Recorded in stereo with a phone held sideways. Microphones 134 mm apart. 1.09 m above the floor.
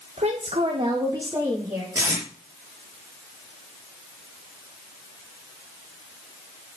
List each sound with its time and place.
0.2 s a woman speaking: 60° right (ahead or behind), 1.3 m; by 1.9 s 15° right (ahead or behind), 2.5 m
1.9 s tape being pulled: 20° right (ahead or behind), 5.5 m